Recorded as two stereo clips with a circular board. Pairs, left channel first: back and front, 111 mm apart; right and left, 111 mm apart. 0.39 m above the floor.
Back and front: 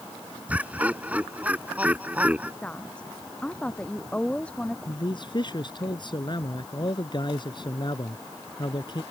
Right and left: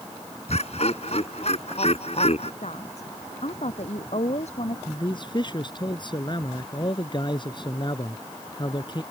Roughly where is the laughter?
Right.